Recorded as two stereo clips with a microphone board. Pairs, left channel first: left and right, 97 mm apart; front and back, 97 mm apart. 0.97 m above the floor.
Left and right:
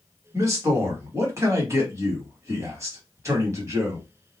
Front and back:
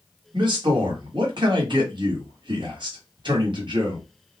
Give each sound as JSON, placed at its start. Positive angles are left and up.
{"t": 0.3, "sound": "a man speaking", "azimuth_deg": -150, "distance_m": 1.3}